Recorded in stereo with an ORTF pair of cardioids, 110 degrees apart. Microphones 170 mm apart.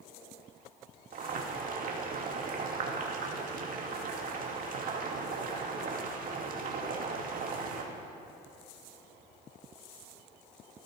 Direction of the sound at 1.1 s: 55° right.